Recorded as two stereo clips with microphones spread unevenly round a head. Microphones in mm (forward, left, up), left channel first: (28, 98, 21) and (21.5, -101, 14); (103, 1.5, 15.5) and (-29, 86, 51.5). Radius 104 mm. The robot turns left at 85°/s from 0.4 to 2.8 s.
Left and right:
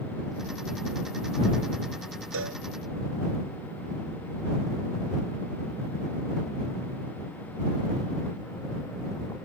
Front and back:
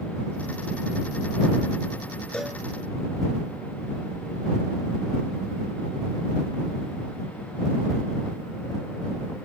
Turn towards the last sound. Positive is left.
turn(degrees=-155)